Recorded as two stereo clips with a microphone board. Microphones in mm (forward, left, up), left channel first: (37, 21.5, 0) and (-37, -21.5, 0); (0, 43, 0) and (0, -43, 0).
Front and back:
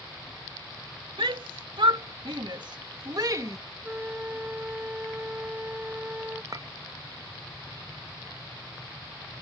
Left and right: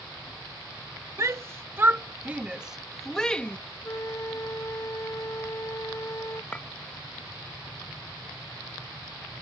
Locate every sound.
1.2 s a shout: 140° right; by 3.6 s 160° left
3.8 s a flute: 140° left
6.5 s a clink: 165° left